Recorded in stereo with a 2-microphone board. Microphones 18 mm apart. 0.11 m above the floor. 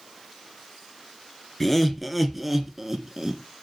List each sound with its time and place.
1.6 s laughter: 10° left (ahead or behind), 1.2 m; by 3.4 s 25° right (ahead or behind), 1.1 m